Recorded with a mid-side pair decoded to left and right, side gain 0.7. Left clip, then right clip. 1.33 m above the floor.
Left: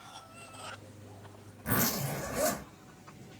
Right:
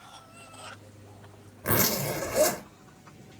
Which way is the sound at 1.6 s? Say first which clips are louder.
Right 5 dB; 65° right.